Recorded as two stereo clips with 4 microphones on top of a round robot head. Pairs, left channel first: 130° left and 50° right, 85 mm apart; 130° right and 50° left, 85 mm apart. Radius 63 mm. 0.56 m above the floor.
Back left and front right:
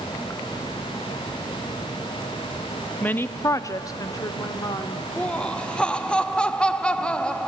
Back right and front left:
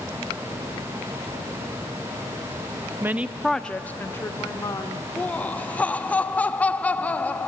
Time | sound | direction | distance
3.0 | a woman speaking | 75° left | 0.6 m
5.2 | laughter | 170° right | 0.6 m